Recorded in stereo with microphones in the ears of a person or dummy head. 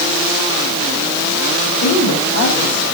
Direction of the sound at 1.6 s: 55° left (ahead or behind).